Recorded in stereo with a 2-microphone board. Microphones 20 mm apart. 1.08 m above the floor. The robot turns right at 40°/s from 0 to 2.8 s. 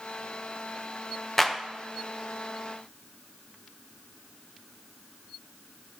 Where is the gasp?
No gasp in this recording.